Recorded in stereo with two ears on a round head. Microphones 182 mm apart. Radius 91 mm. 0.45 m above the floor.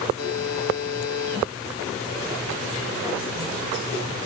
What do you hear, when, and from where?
0.2 s a buzzer: 55° left (ahead or behind), 3 m